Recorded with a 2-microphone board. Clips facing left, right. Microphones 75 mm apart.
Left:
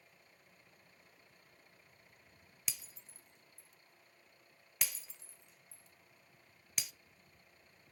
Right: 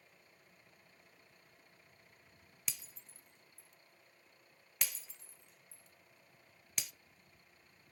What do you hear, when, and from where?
2.7 s breaking glass: centre (ahead or behind), 0.5 m